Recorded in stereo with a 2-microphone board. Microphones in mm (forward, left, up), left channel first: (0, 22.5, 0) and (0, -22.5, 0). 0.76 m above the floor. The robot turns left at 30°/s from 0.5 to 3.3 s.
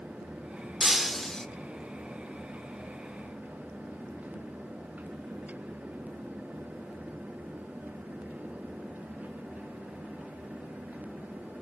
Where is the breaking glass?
10° right (ahead or behind), 1.0 m; by 1.5 s 10° left (ahead or behind), 1.0 m.